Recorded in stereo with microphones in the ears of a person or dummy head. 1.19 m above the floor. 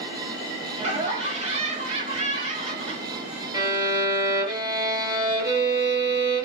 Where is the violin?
25° right (ahead or behind), 1.0 m.